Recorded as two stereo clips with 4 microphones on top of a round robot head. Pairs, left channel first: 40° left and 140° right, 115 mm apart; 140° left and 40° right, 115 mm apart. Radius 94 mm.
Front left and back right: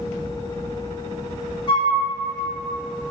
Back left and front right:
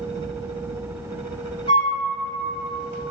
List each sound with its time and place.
1.7 s a flute: 90° left, 0.9 m